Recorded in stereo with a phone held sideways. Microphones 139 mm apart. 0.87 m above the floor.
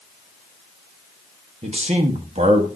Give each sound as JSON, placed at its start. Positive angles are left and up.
{"t": 1.6, "sound": "a man speaking", "side_deg": -50, "distance_m": 1.3}